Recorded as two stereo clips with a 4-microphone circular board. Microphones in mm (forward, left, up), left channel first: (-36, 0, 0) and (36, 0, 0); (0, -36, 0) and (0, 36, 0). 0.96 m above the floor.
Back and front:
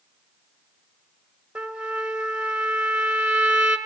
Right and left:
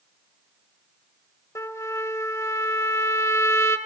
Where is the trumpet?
70° right, 1.0 m.